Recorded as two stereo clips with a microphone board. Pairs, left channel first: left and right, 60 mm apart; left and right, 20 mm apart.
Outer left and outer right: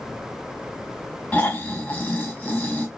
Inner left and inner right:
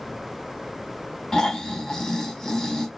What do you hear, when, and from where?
1.3 s snoring: 25° left (ahead or behind), 1.2 m